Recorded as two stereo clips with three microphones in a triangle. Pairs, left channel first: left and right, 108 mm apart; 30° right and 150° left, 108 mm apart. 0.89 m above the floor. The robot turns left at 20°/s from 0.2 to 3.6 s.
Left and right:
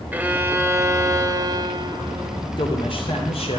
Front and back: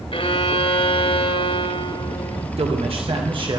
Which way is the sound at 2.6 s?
130° left.